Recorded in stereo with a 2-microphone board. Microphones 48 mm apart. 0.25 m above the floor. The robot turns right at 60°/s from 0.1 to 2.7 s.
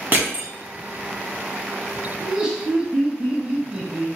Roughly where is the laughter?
Centre.